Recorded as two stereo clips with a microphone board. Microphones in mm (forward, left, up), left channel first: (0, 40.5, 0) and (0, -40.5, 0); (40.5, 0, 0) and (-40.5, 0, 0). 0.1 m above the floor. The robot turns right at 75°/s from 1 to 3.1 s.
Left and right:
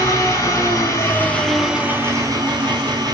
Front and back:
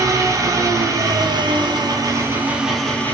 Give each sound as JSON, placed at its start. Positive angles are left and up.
{"t": 0.0, "sound": "an engine running", "azimuth_deg": 140, "distance_m": 0.8}